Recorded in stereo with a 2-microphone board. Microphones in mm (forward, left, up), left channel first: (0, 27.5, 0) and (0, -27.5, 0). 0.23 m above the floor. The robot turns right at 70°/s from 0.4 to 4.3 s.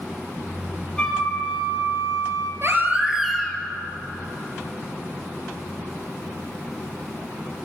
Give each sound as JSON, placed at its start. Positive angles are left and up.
{"t": 1.0, "sound": "a flute", "azimuth_deg": 165, "distance_m": 2.5}
{"t": 2.6, "sound": "a baby crying", "azimuth_deg": -50, "distance_m": 1.6}